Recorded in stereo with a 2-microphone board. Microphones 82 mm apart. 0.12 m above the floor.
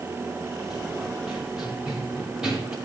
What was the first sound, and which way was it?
Running footsteps, 5° right (ahead or behind).